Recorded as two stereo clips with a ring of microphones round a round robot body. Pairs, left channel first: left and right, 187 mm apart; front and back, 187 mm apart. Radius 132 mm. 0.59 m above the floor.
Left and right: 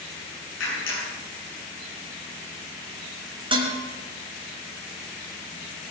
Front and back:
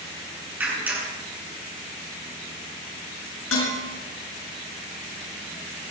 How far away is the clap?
About 7.5 m.